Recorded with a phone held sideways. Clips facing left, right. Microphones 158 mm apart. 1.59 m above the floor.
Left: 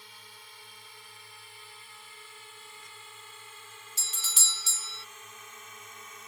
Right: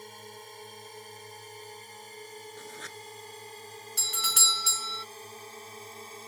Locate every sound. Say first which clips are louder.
0.0 s a drone: right 10 dB; 45° right (ahead or behind); by 6.3 s 35° right (ahead or behind)
2.6 s writing: right 9 dB; 85° right
4.0 s a doorbell: right 9 dB; 60° right (ahead or behind)